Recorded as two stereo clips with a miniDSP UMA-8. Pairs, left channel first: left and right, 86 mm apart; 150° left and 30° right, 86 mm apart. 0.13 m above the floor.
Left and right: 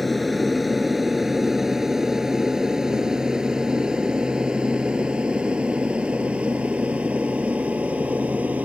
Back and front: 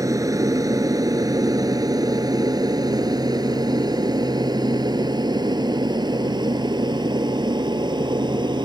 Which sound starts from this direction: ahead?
An aircraft, at 0.0 s.